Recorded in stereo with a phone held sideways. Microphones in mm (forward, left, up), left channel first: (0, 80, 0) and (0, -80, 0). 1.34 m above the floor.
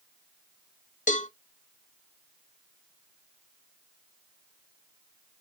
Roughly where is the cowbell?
Left.